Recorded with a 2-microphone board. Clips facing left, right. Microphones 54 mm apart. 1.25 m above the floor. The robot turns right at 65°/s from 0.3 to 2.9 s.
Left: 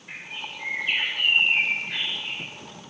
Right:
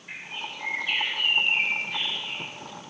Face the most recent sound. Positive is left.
turn(degrees=165)